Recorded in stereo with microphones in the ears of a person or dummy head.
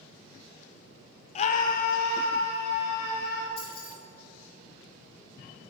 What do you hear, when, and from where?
1.4 s a scream: 30° left (ahead or behind), 0.7 m; by 3.5 s 60° left (ahead or behind), 3 m
3.6 s keys jangling: 25° left (ahead or behind), 2 m